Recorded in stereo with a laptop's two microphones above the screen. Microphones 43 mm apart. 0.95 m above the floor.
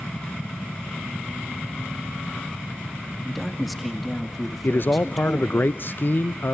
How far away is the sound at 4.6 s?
About 0.5 m.